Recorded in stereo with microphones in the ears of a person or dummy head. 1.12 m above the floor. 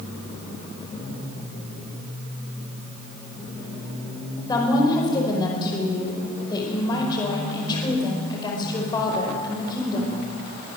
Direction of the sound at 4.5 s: 25° left (ahead or behind).